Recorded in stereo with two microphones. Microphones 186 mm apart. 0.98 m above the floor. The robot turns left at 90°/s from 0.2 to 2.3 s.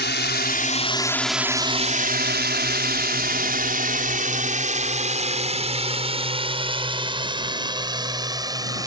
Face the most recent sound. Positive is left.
turn(degrees=-20)  # may be behind; listen again after turning